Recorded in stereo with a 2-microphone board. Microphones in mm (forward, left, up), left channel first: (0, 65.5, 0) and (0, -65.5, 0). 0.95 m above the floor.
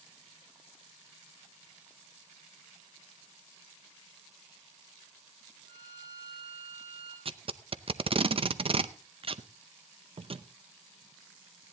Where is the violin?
30° right (ahead or behind), 10 m.